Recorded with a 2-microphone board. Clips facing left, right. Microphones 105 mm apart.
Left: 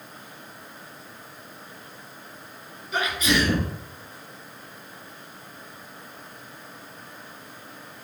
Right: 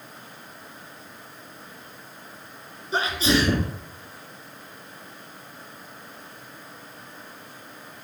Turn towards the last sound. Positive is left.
turn(degrees=-30)  # may be behind; listen again after turning